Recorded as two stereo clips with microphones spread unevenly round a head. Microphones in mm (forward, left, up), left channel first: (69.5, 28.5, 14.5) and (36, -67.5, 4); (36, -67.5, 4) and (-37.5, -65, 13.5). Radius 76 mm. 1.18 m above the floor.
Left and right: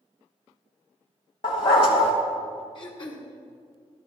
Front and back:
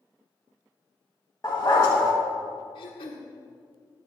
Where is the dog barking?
65° left, 1.5 m.